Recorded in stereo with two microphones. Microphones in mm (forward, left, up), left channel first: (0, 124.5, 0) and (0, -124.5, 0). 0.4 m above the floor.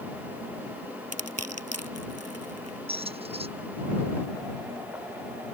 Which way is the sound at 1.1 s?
80° right.